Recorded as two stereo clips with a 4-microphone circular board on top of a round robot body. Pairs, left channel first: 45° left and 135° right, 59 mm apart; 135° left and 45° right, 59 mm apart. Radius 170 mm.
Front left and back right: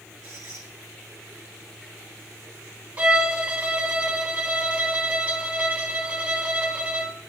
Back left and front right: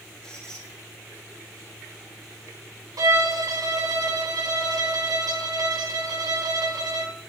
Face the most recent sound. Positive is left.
turn(degrees=-70)